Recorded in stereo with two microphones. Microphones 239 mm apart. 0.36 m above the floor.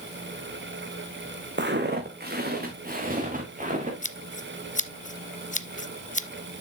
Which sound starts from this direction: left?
Scissors, at 4.0 s.